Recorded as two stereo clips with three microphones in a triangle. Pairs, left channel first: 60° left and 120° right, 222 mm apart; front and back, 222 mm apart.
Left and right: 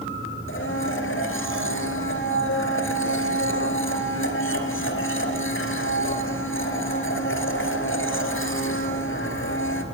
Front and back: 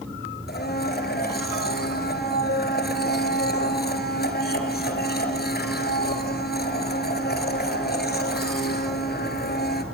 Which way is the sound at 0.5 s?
40° left.